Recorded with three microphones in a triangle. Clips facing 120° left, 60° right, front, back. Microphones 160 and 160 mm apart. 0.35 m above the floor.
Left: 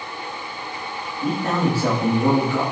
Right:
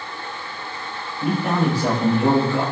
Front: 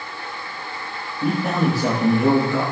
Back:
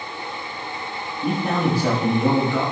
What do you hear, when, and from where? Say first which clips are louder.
1.2 s a man speaking: right 1 dB, front 1 dB; 20° left, 7 m; by 2.6 s 10° left, 7.5 m